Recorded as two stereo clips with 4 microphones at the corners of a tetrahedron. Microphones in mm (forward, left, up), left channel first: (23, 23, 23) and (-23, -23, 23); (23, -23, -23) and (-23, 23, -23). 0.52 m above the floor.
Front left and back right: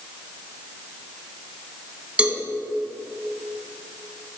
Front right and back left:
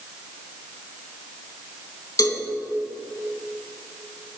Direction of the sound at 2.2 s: 65° right.